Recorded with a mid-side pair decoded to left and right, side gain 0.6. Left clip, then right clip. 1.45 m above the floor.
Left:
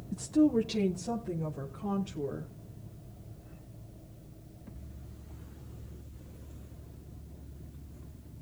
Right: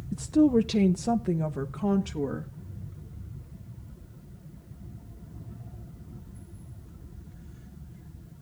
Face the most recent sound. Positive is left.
turn(degrees=-75)